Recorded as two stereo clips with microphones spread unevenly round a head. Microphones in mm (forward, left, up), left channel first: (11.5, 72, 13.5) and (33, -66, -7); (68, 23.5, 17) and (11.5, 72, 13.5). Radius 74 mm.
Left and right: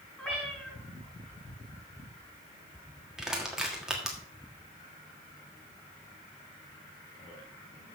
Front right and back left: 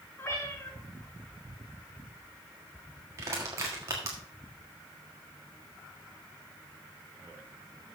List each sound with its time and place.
0.2 s a cat meowing: 20° left, 5.5 m
3.2 s crushing: 175° right, 1.5 m